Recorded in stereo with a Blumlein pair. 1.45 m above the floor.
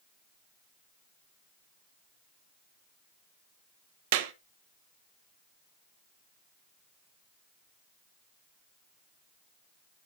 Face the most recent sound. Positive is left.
turn(degrees=-50)